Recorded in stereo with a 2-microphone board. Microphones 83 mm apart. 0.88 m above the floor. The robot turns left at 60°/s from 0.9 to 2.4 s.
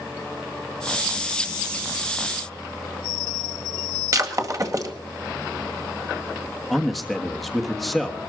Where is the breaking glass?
45° right (ahead or behind), 1.8 m.